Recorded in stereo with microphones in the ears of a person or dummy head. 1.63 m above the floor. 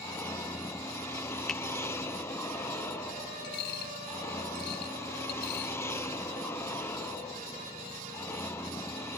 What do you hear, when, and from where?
0.0 s a vehicle: 20° left (ahead or behind)
1.5 s a finger snap: 10° left (ahead or behind)
3.4 s a dropped coin: 55° left (ahead or behind)